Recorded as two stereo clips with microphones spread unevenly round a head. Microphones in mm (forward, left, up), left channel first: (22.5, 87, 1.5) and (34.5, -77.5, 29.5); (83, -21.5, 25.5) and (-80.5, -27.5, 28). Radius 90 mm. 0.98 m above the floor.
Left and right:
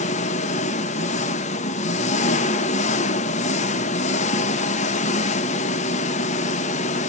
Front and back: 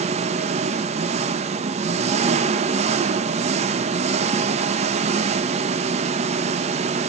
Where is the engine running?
135° left, 0.9 m.